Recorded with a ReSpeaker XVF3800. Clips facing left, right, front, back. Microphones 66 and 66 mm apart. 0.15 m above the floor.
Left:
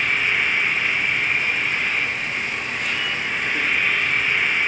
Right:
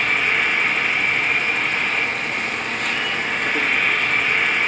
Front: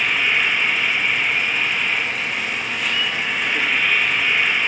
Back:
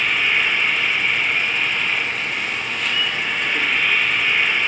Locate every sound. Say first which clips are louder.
0.0 s an insect: right 1 dB, even; 85° right, 1.5 m